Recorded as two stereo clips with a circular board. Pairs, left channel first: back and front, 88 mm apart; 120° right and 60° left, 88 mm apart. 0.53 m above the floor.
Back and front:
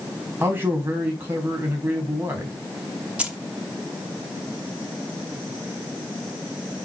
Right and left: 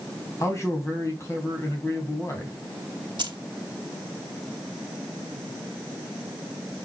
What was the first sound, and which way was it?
A man speaking, 65° right.